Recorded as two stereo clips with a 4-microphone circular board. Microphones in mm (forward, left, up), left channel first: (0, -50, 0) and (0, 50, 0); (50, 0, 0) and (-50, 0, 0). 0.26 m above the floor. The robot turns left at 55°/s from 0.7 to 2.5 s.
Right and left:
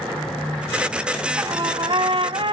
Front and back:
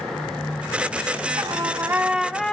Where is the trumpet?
145° left, 0.6 m; by 2.5 s 80° left, 0.6 m.